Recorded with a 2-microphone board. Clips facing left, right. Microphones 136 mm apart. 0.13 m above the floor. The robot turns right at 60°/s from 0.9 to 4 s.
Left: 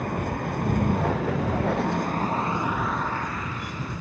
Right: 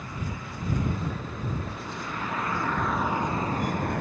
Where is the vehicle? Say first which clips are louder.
Left 9 dB; 60° left; by 4.0 s 115° right.